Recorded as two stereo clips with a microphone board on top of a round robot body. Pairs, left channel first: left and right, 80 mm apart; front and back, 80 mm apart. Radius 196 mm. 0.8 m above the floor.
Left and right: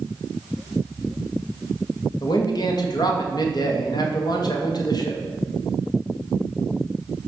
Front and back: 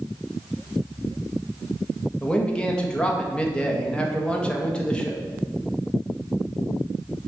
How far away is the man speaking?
About 1.7 m.